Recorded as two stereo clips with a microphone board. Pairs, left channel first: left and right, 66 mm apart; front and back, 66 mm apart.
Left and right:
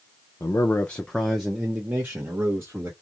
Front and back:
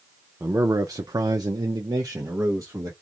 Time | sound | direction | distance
0.4 | a man speaking | 130° left | 0.5 m